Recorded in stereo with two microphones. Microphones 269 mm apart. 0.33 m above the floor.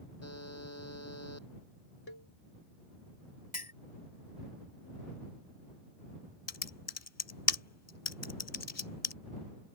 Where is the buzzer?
65° left (ahead or behind).